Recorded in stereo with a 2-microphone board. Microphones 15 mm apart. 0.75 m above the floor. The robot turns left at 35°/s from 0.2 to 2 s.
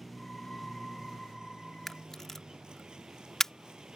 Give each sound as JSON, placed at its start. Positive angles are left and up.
{"t": 0.0, "sound": "a vehicle", "azimuth_deg": -10}
{"t": 1.9, "sound": "a camera shutter", "side_deg": 25}